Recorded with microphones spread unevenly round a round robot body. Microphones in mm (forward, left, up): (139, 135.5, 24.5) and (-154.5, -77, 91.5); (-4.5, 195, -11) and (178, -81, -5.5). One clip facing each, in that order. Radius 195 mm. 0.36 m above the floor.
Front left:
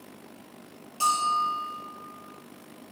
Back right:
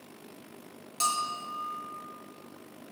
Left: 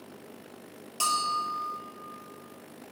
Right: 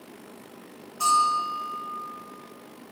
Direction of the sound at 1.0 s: 150° left.